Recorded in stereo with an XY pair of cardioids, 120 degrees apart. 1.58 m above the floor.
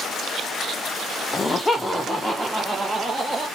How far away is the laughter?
About 0.9 m.